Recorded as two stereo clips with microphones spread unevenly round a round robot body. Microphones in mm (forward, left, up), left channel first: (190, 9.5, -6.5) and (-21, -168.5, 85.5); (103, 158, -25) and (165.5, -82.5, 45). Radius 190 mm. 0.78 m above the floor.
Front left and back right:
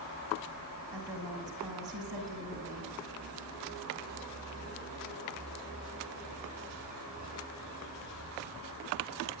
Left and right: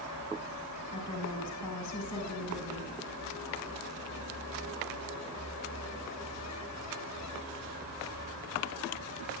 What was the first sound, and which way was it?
A woman speaking, 140° left.